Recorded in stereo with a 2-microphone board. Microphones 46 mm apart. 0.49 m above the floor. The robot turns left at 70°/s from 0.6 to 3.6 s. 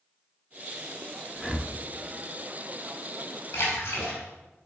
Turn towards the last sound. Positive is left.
turn(degrees=60)  # may be behind; listen again after turning